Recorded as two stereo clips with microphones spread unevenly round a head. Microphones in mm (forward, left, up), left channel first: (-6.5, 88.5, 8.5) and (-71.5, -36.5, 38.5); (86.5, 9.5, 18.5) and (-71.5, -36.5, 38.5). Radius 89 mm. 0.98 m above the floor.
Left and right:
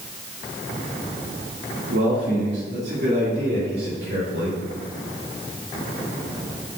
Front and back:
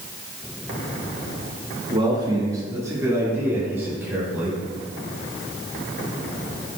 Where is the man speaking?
100° right, 1.3 m; by 4.6 s 85° right, 3.5 m.